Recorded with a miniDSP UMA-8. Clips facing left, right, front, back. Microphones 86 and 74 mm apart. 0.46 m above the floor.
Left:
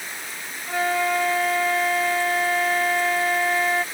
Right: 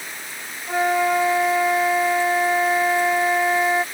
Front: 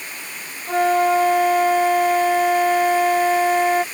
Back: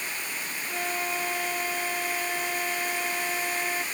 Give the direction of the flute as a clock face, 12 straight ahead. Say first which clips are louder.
Right 3 dB, front 16 dB; 1 o'clock.